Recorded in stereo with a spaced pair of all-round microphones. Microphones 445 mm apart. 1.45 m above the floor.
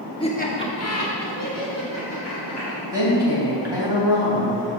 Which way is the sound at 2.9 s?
65° left (ahead or behind).